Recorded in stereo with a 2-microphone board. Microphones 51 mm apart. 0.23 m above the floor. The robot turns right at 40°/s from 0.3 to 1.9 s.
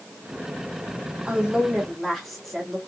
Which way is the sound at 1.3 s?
20° right (ahead or behind).